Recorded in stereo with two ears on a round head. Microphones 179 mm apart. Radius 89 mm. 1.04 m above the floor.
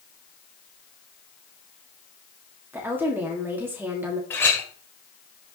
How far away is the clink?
About 2.5 m.